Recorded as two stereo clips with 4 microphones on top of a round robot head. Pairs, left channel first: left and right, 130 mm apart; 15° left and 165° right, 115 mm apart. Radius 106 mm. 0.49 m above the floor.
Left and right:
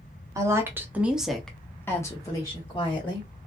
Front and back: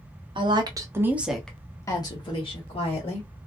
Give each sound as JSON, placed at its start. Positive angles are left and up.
{"t": 0.3, "sound": "a woman speaking", "azimuth_deg": -150, "distance_m": 1.0}